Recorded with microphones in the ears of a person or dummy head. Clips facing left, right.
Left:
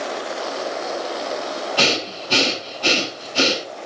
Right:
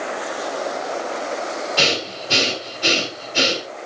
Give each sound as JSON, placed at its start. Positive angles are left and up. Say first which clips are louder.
{"t": 1.8, "sound": "breathing", "louder": "left 2 dB", "side_deg": -30, "distance_m": 5.0}